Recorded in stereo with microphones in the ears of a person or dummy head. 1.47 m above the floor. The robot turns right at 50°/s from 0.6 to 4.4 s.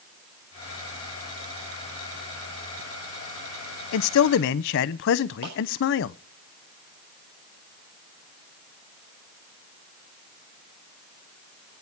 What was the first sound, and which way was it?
A man speaking, 70° left (ahead or behind).